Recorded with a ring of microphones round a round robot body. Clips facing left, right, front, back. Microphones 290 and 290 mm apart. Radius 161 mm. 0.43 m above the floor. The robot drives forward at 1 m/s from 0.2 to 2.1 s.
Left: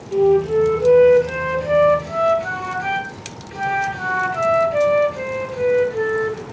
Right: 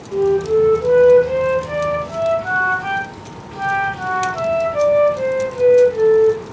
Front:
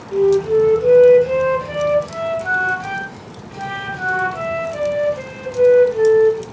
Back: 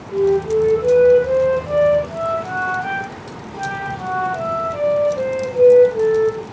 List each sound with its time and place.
0.1 s a flute: 40° left, 4 m; by 6.4 s 65° left, 3 m